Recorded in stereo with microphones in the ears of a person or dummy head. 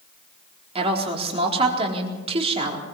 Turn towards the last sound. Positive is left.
turn(degrees=-35)  # may be behind; listen again after turning